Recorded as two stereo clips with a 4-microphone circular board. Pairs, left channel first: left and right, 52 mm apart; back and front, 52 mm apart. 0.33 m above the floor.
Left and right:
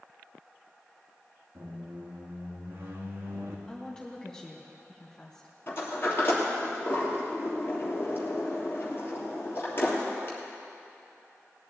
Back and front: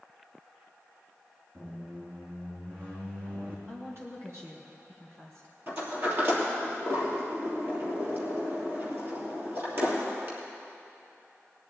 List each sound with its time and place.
1.6 s a squeak: 45° right, 2.5 m
3.7 s a woman speaking: 15° left, 3 m
5.7 s a sliding door: 45° left, 3 m